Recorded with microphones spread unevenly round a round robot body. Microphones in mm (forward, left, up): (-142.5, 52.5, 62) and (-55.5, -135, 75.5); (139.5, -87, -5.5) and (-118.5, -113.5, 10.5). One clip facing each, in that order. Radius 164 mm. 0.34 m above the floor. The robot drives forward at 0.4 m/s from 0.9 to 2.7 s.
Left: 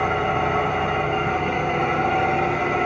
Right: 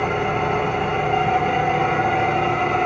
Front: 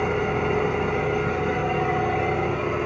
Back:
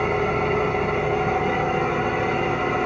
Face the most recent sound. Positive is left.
turn(degrees=-175)